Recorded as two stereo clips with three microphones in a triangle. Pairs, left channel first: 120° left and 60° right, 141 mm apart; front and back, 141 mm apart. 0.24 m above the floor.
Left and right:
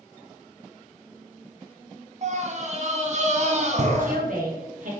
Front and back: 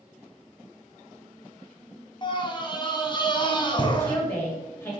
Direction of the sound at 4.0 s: 75° right.